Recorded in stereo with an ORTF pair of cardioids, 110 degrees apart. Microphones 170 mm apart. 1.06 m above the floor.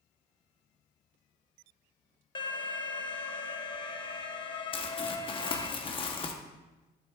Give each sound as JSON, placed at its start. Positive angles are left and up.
{"t": 2.4, "sound": "an alarm", "azimuth_deg": 30, "distance_m": 0.9}
{"t": 4.7, "sound": "crumpling", "azimuth_deg": 30, "distance_m": 1.1}